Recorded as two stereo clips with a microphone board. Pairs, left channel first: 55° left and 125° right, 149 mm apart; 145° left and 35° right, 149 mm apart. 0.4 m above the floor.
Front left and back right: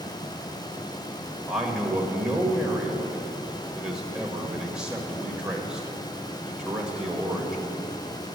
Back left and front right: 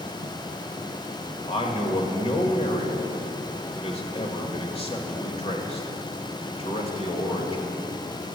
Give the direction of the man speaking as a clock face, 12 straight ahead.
7 o'clock.